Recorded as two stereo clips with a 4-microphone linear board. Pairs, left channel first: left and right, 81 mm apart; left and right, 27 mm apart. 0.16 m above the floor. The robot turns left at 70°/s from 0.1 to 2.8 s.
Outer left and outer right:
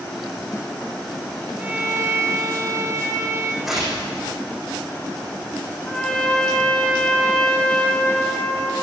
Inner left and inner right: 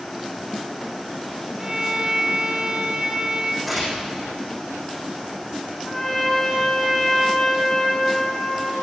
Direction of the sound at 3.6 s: 5° right (ahead or behind).